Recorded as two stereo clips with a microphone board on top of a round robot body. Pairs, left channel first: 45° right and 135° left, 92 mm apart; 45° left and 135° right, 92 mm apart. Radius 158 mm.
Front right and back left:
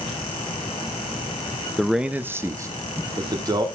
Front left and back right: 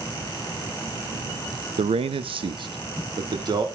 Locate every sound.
1.8 s a man speaking: 130° right, 0.7 m; by 3.6 s straight behind, 2 m